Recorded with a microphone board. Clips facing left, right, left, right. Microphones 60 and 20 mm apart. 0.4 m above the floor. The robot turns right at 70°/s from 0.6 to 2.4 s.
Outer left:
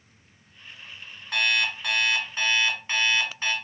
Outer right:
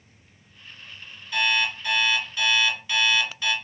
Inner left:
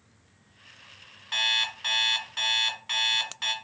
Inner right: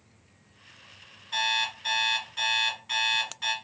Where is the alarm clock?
65° left, 2 m; by 3.5 s 140° left, 2 m.